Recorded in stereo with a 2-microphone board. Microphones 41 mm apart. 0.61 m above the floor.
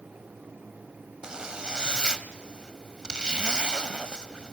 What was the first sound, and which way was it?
A zipper, 20° right (ahead or behind).